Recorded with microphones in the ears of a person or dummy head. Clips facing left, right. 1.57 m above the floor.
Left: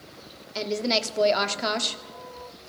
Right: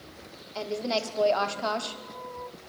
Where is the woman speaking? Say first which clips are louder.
Left 3 dB; 30° left (ahead or behind), 0.8 m.